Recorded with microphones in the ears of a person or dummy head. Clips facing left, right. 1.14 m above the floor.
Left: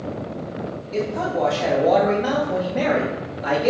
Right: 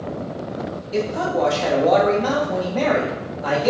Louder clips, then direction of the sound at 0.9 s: Right 2 dB; 10° right (ahead or behind).